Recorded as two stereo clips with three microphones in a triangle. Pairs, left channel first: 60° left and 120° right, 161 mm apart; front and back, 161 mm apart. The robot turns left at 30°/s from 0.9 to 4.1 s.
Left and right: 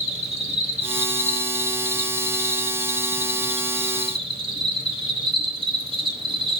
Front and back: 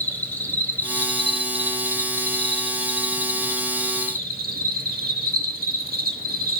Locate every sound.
0.0 s an insect: 75° right, 1.0 m; by 6.6 s 170° right, 1.0 m